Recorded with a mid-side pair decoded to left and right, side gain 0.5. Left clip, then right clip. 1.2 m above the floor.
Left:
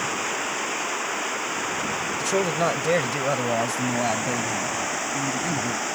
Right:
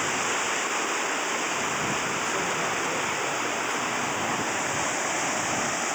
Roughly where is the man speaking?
Left.